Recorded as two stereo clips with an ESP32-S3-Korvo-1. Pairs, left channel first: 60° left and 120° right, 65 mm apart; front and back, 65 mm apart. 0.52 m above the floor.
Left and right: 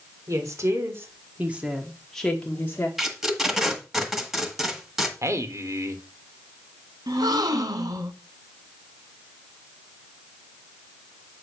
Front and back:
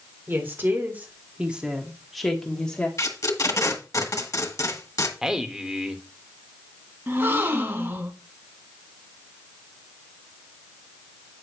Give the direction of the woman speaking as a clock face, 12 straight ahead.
4 o'clock.